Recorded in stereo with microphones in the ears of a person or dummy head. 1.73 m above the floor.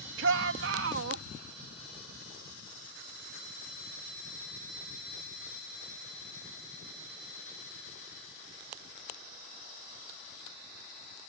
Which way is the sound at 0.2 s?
75° right (ahead or behind).